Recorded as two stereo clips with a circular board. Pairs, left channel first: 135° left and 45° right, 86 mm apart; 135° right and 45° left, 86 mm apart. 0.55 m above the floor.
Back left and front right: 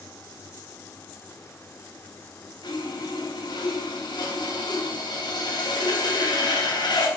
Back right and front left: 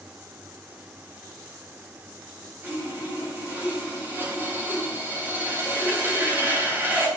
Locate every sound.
2.6 s sawing: 110° left, 3.5 m